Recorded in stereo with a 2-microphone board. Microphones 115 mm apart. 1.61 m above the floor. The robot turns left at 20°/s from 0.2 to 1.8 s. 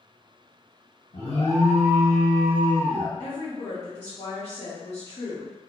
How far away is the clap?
No clap in this recording.